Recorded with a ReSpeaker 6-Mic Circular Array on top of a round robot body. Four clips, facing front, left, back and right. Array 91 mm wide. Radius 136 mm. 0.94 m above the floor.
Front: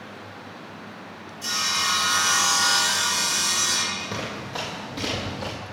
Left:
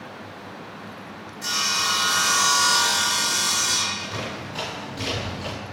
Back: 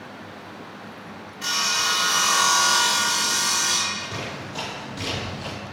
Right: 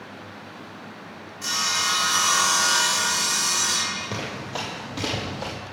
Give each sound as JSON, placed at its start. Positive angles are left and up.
{"t": 1.4, "sound": "sawing", "azimuth_deg": -175, "distance_m": 1.9}
{"t": 4.0, "sound": "running footsteps", "azimuth_deg": -70, "distance_m": 1.1}